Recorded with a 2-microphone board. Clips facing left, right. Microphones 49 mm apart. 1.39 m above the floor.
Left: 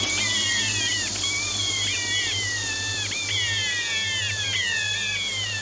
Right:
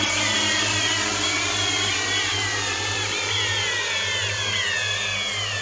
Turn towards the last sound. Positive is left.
turn(degrees=-60)  # may be behind; listen again after turning